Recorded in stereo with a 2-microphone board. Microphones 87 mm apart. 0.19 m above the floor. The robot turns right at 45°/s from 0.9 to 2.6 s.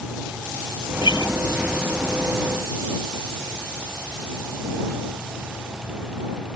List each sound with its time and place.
1.0 s a guitar: 65° left (ahead or behind); by 1.4 s 50° left (ahead or behind)